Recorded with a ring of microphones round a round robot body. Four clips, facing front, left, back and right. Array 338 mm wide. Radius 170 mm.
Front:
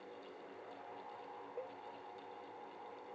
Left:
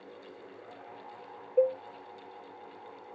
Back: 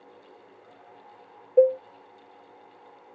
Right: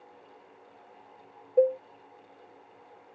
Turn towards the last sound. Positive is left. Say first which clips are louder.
# right 3 dB, back 31 dB
turn(degrees=-170)